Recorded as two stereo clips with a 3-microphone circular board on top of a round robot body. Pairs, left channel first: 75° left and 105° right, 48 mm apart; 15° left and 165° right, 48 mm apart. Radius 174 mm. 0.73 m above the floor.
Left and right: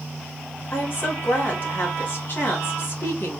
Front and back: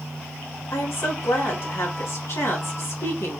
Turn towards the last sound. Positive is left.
turn(degrees=30)